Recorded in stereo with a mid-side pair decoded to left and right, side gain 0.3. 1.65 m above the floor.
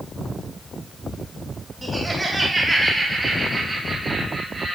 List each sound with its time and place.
1.8 s laughter: 35° right, 3.5 m; by 4.8 s 65° right, 4 m